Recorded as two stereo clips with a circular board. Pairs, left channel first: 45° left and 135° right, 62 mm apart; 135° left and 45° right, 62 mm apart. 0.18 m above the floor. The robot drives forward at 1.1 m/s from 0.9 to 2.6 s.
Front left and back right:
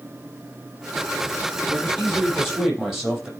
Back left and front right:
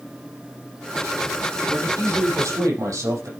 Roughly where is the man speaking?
Ahead right.